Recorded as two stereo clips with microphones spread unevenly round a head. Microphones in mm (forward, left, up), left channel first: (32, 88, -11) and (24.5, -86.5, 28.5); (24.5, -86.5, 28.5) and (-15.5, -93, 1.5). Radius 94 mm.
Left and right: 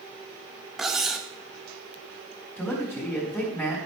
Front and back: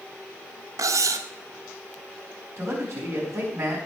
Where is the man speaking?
170° left, 4.5 m.